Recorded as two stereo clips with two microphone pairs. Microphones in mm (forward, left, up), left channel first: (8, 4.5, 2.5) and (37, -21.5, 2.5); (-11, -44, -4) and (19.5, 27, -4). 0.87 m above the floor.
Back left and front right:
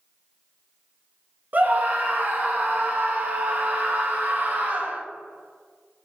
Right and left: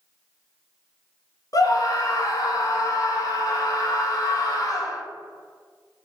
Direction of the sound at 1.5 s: 80° right.